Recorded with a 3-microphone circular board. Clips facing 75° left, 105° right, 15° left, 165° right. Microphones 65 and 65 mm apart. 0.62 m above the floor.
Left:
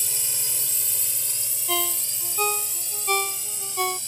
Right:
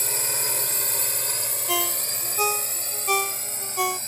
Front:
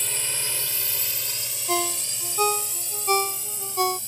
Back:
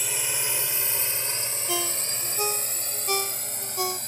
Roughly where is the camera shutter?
I don't hear a camera shutter.